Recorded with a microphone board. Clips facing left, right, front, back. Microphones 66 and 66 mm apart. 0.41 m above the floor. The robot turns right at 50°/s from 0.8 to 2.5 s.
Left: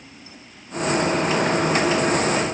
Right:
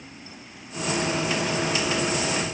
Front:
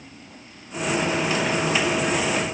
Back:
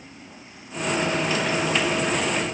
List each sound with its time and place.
Only background noise.